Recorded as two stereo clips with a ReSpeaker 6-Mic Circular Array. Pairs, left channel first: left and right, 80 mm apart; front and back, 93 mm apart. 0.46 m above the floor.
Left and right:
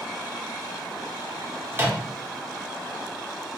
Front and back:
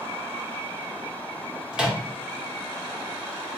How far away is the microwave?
About 0.8 m.